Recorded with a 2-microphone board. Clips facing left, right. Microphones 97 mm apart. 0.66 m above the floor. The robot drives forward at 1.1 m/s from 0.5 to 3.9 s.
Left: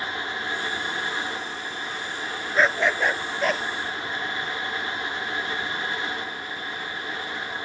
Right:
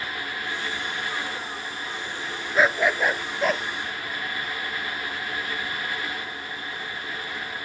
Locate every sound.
2.5 s a dog barking: 5° right (ahead or behind)